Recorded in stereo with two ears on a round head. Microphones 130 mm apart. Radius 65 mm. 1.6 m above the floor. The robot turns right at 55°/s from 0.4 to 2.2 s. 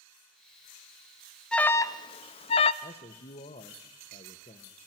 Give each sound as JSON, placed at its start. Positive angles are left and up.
{"t": 1.5, "sound": "an alarm", "azimuth_deg": 5, "distance_m": 0.6}
{"t": 2.8, "sound": "a man speaking", "side_deg": 45, "distance_m": 1.1}